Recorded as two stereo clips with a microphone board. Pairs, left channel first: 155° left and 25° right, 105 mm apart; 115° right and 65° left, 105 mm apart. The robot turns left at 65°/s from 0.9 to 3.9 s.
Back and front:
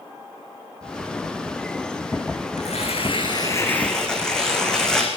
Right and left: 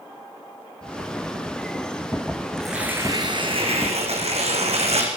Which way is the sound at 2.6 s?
160° left.